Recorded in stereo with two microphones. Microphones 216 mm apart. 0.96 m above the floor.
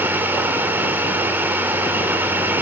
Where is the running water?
10° right (ahead or behind), 1.6 m.